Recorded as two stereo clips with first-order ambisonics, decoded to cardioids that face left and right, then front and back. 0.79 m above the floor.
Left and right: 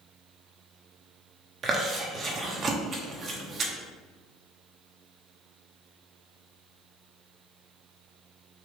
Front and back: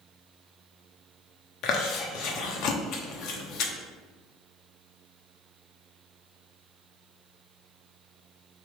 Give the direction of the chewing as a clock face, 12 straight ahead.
1 o'clock.